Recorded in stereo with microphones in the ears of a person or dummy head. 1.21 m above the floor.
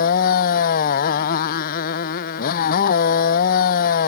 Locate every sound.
0.0 s a motorcycle: 45° left (ahead or behind)